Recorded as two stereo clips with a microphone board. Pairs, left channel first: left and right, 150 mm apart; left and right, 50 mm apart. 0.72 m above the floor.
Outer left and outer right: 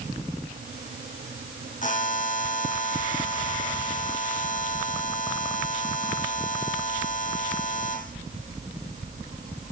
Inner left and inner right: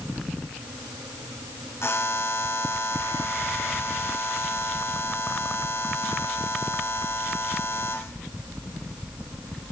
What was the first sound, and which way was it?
A buzzer, 60° left (ahead or behind).